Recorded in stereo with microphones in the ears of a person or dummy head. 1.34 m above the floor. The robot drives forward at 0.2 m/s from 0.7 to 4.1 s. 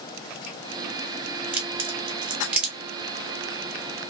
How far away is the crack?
About 0.6 m.